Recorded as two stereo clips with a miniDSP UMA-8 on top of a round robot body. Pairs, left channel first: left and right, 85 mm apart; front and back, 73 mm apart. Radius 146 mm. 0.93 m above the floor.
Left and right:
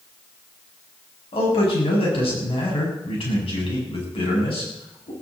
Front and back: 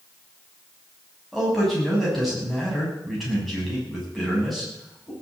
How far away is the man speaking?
About 6.5 m.